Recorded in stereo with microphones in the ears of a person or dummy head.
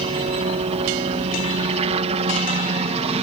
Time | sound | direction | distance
0.0 | a helicopter | 30° right (ahead or behind) | ?